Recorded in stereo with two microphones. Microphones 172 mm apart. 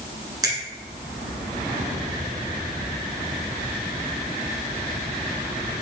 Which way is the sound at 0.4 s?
25° right (ahead or behind).